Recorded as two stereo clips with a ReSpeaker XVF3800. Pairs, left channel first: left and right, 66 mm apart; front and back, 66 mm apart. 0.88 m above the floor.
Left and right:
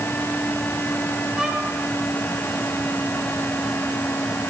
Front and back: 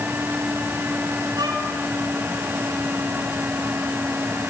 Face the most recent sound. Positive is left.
turn(degrees=-165)